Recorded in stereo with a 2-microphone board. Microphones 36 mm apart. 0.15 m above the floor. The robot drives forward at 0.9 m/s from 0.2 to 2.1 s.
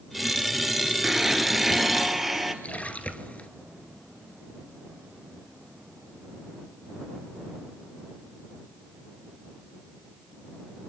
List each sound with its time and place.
1.0 s a blender: 10° right (ahead or behind), 1.6 m; by 2.5 s 5° right (ahead or behind), 2.5 m
2.6 s a splash: 40° left (ahead or behind), 1.8 m